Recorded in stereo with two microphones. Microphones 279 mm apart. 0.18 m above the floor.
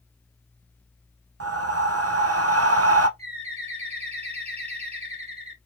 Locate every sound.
1.4 s breathing: 60° right (ahead or behind), 0.6 m
3.2 s a bird: 25° right (ahead or behind), 1.6 m